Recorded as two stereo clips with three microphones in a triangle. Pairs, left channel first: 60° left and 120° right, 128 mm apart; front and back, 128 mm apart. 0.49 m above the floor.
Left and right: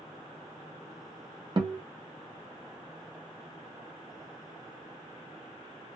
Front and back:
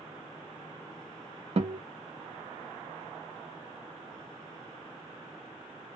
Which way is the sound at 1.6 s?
160° right.